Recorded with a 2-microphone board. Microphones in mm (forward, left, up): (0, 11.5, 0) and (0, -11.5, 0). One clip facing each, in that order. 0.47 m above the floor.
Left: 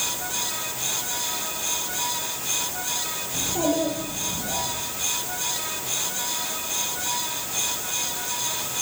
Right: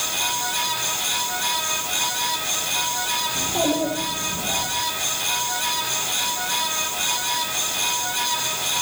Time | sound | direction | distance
3.3 | a child speaking | 70° right (ahead or behind) | 9 m